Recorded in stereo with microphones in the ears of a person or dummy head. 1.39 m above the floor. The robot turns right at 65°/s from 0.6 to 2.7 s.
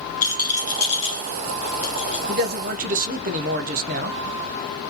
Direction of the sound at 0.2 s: 40° left (ahead or behind).